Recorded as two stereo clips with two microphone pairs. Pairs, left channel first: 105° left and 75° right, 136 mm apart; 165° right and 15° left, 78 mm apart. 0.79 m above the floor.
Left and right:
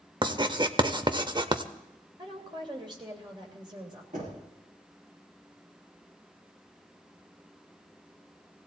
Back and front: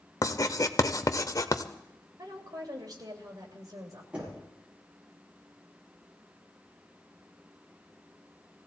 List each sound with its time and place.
0.2 s writing: 130° right, 0.8 m
2.2 s a woman speaking: 25° right, 3 m
4.1 s knocking: 60° right, 6.5 m